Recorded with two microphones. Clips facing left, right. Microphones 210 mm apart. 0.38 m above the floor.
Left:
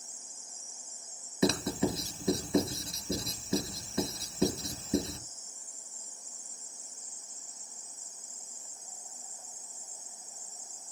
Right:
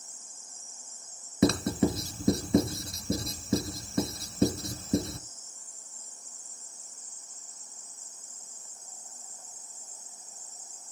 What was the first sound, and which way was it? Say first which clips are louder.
Writing: right 4 dB; 50° right (ahead or behind).